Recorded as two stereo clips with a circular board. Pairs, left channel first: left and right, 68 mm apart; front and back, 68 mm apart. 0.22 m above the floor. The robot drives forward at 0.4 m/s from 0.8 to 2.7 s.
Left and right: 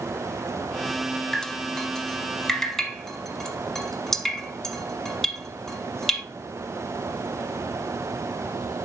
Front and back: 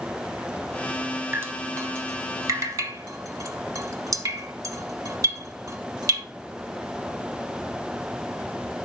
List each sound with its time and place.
1.3 s dripping: 165° left, 0.6 m; by 6.2 s 175° left, 1.0 m